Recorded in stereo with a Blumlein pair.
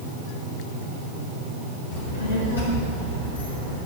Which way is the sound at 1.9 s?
55° left.